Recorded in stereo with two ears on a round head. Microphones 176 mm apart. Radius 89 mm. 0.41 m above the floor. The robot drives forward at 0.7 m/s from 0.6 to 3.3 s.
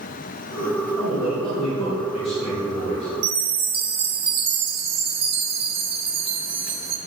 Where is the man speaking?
20° left (ahead or behind), 2.0 m; by 3.1 s 35° left (ahead or behind), 1.4 m.